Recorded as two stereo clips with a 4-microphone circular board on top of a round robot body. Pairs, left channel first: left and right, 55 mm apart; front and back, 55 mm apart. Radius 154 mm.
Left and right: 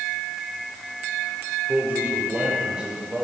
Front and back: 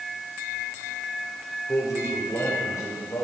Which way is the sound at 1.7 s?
30° right.